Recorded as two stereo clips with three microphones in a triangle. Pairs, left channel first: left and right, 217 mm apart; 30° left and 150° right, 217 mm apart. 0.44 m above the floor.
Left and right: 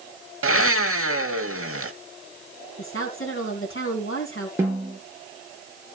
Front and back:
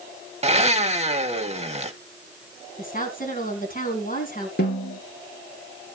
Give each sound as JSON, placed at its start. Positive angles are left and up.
{"t": 0.4, "sound": "a blender", "azimuth_deg": -90, "distance_m": 0.8}
{"t": 2.8, "sound": "a woman speaking", "azimuth_deg": 80, "distance_m": 3.5}
{"t": 4.6, "sound": "a snare drum", "azimuth_deg": -10, "distance_m": 5.5}